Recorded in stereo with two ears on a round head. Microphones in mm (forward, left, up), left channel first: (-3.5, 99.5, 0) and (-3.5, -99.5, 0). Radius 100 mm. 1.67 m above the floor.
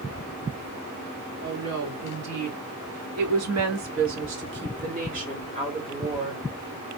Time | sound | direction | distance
1.4 | a woman speaking | 70° right (ahead or behind) | 2.0 m